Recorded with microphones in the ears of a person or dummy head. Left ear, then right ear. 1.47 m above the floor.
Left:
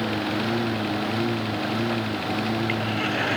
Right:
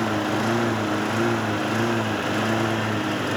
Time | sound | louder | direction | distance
0.0 | a lawn mower | right 3 dB | 30° right (ahead or behind) | ?